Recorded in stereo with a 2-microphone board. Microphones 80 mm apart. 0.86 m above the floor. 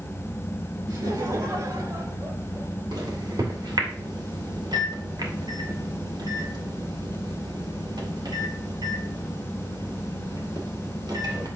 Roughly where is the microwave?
Right.